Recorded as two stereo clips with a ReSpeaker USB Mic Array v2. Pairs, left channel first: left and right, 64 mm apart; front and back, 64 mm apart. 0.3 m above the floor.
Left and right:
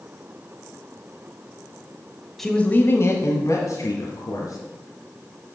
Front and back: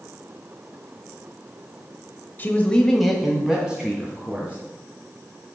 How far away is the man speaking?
About 1.0 m.